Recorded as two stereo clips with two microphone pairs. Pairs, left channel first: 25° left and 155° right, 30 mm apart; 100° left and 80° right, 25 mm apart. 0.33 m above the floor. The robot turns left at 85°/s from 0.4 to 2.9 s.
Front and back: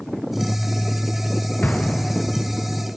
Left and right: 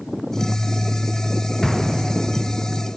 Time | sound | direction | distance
1.6 | an explosion | 20° left | 2.5 m